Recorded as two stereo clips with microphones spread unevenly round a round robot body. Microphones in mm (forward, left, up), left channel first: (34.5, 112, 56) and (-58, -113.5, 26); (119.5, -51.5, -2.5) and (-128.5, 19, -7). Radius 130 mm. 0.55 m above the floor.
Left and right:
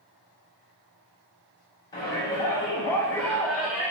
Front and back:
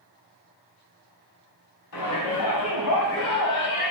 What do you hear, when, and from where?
1.9 s a shout: 10° right, 5 m; by 3.9 s 35° right, 2 m